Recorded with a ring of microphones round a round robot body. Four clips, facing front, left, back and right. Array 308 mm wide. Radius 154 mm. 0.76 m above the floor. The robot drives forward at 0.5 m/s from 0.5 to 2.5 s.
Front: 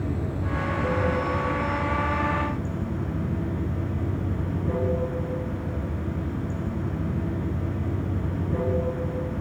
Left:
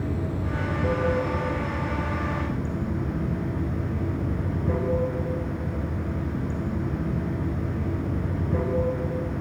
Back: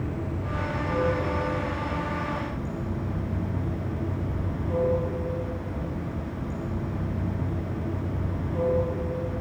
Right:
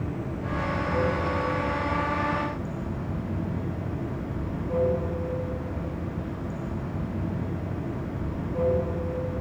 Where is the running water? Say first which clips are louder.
Left 3 dB, front 2 dB; 45° left, 5 m; by 9.4 s 55° left, 4.5 m.